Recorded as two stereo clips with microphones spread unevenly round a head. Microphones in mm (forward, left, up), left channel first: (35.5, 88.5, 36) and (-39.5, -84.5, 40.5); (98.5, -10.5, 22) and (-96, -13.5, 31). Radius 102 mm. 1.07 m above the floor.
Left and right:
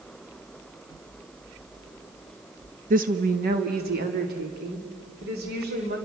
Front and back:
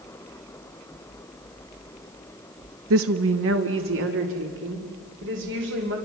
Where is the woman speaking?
165° right, 0.8 m; by 6.0 s 150° right, 3.5 m.